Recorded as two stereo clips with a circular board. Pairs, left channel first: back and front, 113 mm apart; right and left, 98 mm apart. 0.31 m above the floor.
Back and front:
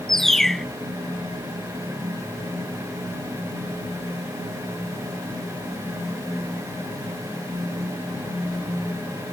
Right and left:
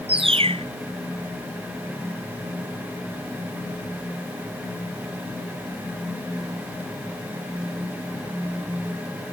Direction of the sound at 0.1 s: 95° left.